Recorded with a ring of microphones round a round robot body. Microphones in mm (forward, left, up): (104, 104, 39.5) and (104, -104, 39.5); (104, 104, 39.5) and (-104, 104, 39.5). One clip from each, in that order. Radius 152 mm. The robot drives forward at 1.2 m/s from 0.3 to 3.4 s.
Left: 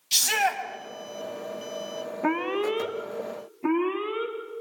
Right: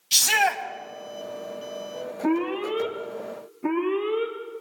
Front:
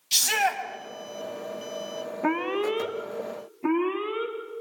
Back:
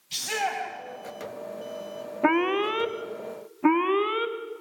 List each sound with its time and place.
0.1 s a shout: 20° right, 3.5 m
2.2 s an alarm: 135° left, 1.6 m; by 4.3 s 155° left, 2.5 m